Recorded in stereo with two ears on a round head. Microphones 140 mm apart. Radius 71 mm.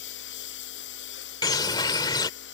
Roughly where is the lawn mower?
Left.